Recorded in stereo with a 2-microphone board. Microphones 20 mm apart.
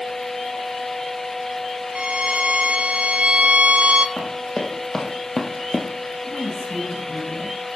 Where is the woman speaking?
70° left (ahead or behind), 8 m.